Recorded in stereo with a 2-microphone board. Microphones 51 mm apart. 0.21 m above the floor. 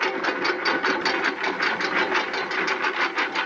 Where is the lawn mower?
Centre (ahead or behind); by 3.5 s 5° left (ahead or behind).